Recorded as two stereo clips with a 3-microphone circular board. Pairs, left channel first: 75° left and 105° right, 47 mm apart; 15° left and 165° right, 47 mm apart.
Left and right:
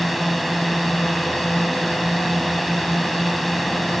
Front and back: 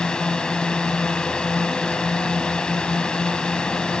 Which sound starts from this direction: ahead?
A drone, at 0.0 s.